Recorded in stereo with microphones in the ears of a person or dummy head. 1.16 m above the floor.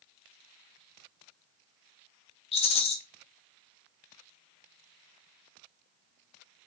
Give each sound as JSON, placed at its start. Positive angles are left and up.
{"t": 2.5, "sound": "a rattle", "side_deg": 30, "distance_m": 0.8}